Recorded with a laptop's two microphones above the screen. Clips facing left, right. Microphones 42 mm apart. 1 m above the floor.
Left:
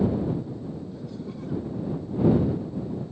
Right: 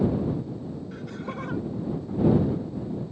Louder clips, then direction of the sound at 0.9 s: Right 2 dB; 70° right (ahead or behind).